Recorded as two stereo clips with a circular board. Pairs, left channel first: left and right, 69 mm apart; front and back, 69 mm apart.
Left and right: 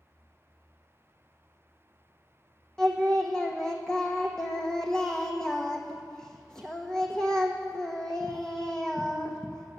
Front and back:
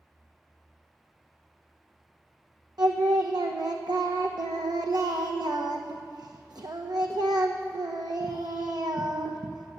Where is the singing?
170° left, 1.4 m.